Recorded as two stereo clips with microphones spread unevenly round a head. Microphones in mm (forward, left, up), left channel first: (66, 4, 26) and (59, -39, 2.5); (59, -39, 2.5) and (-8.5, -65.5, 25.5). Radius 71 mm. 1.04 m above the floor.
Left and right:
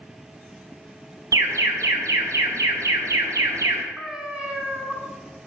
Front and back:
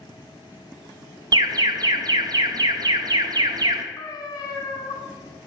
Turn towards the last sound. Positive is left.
turn(degrees=-15)